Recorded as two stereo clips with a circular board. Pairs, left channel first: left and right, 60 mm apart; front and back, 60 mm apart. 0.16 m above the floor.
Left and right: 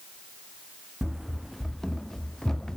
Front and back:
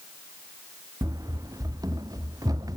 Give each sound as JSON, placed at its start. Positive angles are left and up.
{"t": 1.0, "sound": "running footsteps", "azimuth_deg": -170}